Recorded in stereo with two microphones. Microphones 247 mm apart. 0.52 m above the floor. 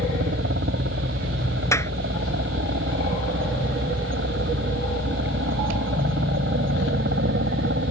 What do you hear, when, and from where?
0.0 s a helicopter: 55° right (ahead or behind)
1.7 s a clap: 10° left (ahead or behind)